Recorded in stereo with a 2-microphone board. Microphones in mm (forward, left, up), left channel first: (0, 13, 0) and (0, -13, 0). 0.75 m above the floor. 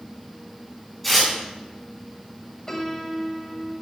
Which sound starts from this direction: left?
A piano, at 2.7 s.